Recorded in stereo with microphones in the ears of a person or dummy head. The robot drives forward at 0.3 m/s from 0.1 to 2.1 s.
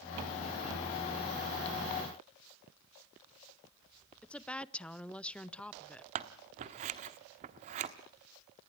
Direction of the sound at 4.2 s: 5° left (ahead or behind).